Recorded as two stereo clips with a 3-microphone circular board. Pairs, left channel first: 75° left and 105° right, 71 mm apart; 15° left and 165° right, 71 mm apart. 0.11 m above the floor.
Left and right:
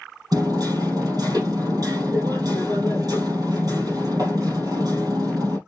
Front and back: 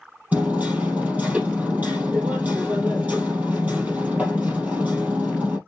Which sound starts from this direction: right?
Hammering, at 0.3 s.